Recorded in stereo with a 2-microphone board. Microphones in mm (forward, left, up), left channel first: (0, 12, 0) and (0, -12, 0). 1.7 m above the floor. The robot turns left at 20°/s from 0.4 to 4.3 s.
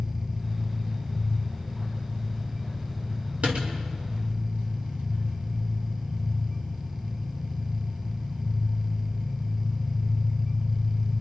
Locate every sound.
0.0 s an engine running: 20° right, 5 m; by 11.2 s 95° right, 5 m
3.4 s a door slam: 65° right (ahead or behind), 2.5 m; by 3.7 s 60° right (ahead or behind), 2.5 m